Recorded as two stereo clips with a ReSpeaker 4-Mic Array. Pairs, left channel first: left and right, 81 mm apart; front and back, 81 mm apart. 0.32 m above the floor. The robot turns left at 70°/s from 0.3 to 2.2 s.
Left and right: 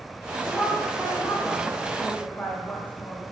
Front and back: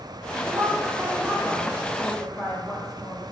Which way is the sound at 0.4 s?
155° right.